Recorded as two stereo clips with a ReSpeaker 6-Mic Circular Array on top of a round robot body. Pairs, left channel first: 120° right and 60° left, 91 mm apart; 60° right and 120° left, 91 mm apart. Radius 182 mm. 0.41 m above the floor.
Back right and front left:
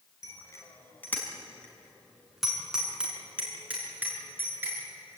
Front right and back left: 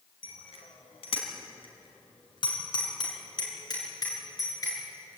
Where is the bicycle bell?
65° right, 4 m; by 5.2 s 5° right, 8 m.